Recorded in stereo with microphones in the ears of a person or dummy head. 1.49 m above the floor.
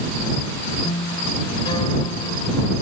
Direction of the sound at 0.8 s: 35° left (ahead or behind).